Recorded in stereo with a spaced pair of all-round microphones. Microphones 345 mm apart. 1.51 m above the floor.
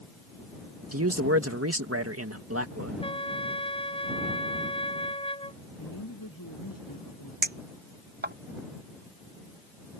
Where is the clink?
30° right (ahead or behind).